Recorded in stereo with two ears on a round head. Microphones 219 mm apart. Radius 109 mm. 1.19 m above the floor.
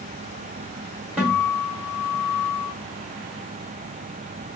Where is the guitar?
5° right (ahead or behind), 2 m.